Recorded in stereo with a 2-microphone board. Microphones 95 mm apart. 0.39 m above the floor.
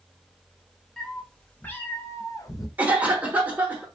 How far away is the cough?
About 0.8 m.